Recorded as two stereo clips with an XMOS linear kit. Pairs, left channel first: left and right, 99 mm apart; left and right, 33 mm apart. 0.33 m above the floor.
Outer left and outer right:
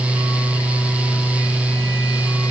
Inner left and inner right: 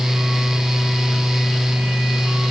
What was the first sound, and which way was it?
Only background noise.